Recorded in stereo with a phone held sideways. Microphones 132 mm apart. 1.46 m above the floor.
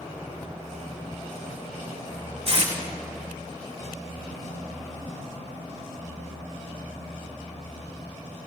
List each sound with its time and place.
2.5 s tape being pulled: 45° right (ahead or behind), 3 m